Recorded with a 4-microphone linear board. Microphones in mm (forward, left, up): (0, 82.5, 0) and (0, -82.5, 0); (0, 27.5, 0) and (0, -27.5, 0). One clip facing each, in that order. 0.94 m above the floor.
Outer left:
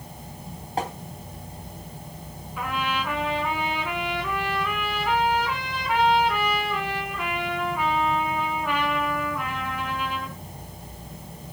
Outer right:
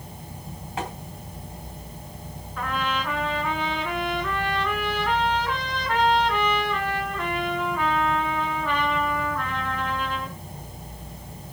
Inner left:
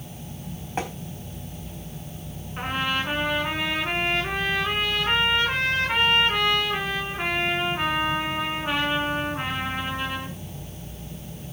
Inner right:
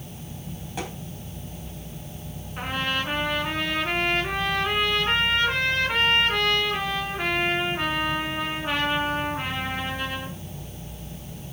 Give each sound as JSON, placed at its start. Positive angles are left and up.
{"t": 0.8, "sound": "tapping", "side_deg": 35, "distance_m": 3.5}
{"t": 2.6, "sound": "a trumpet", "side_deg": 10, "distance_m": 4.5}